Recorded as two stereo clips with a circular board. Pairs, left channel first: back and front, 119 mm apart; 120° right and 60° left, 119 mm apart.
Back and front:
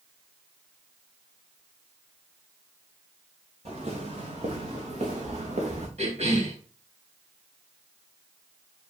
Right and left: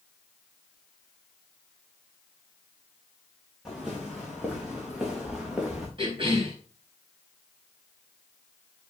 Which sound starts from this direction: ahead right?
Footsteps, at 3.6 s.